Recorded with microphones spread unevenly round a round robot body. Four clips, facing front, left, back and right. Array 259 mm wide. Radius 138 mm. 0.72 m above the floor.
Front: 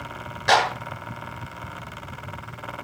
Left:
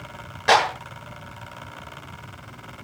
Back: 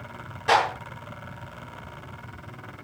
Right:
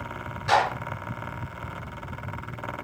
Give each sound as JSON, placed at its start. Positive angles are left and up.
{"t": 0.5, "sound": "a clap", "azimuth_deg": 65, "distance_m": 8.5}